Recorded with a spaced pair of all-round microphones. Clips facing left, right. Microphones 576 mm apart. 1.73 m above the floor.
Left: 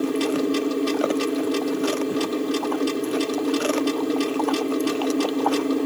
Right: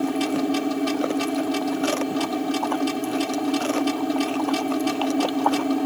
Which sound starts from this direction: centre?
A machine running, at 0.0 s.